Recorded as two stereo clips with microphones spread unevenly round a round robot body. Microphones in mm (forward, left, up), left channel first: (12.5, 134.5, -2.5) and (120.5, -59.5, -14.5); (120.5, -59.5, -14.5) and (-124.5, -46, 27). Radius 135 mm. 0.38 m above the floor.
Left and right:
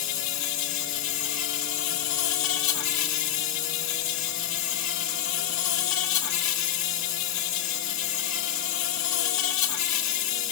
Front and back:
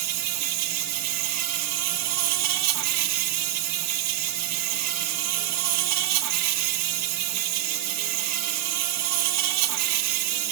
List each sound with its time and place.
0.0 s an insect: 155° left, 1.0 m